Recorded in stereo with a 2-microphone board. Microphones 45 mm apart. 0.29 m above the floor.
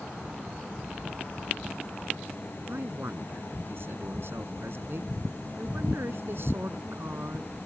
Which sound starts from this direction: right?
A man speaking, at 2.7 s.